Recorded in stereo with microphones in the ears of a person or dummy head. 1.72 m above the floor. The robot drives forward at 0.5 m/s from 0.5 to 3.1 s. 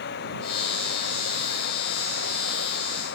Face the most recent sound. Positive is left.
turn(degrees=60)  # may be behind; listen again after turning